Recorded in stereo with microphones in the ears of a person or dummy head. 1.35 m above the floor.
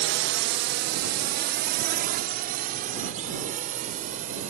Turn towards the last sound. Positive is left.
turn(degrees=-40)  # may be behind; listen again after turning